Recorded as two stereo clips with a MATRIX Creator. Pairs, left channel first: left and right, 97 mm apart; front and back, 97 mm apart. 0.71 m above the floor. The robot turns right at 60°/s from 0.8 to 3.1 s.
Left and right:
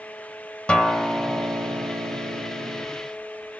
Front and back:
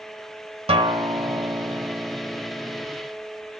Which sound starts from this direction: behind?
A guitar, at 0.7 s.